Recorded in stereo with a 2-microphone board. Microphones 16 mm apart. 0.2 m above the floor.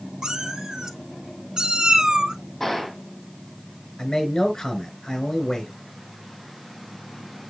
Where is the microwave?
No microwave in this recording.